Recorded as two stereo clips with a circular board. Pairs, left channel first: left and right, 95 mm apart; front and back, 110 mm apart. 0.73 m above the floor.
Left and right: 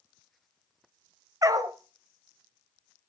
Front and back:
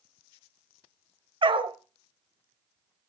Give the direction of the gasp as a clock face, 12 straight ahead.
No gasp in this recording.